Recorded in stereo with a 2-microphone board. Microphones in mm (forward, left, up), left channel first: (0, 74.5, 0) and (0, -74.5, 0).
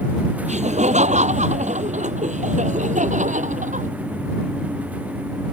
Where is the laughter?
50° right (ahead or behind); by 3.9 s 55° right (ahead or behind).